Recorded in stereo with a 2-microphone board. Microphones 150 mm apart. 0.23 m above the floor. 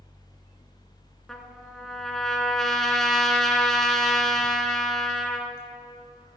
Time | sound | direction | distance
1.3 | a trumpet | centre (ahead or behind) | 1.4 m